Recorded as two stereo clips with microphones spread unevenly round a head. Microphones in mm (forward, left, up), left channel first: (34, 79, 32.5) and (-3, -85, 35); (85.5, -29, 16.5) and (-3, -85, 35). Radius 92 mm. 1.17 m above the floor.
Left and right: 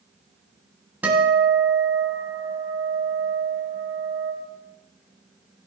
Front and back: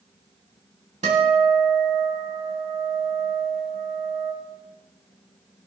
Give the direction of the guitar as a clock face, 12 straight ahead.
6 o'clock.